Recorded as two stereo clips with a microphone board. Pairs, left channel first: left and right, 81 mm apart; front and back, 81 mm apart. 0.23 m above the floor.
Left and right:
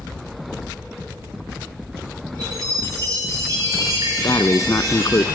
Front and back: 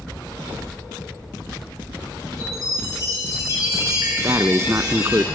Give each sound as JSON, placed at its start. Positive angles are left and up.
{"t": 2.4, "sound": "a chime", "azimuth_deg": -135, "distance_m": 7.0}
{"t": 4.2, "sound": "breathing", "azimuth_deg": 130, "distance_m": 0.7}